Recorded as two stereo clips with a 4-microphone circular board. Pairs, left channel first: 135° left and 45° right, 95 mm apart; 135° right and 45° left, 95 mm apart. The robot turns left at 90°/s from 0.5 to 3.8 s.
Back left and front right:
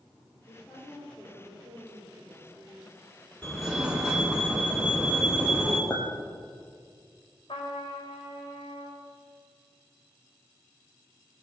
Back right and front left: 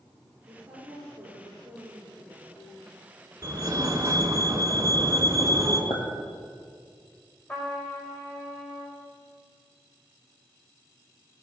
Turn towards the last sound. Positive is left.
turn(degrees=155)